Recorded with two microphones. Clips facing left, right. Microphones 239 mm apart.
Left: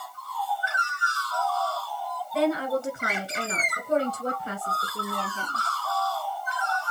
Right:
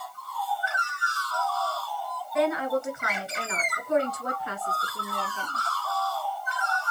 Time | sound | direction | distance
2.3 | a woman speaking | 35° left (ahead or behind) | 1.9 m